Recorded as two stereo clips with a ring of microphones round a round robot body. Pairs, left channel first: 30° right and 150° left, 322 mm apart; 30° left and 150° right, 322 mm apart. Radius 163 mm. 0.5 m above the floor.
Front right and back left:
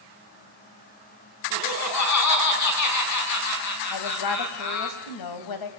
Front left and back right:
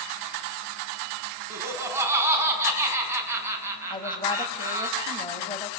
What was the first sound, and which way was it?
Laughter, 70° right.